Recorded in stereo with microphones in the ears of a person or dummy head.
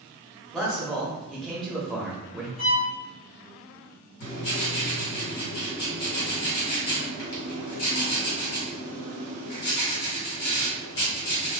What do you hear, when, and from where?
0.5 s a man speaking: 5° left (ahead or behind), 0.8 m
2.6 s a violin: 50° left (ahead or behind), 1.7 m
4.2 s writing: 60° left (ahead or behind), 1.9 m